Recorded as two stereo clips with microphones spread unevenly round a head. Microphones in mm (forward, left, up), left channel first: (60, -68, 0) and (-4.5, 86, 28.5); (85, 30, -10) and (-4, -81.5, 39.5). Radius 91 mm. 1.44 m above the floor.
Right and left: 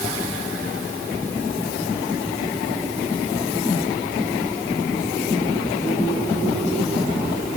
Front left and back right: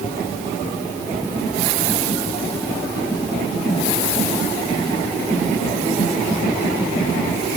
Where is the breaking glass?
No breaking glass in this recording.